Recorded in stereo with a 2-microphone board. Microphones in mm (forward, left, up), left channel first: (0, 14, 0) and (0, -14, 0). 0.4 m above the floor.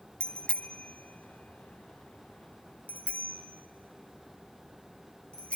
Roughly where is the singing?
No singing in this recording.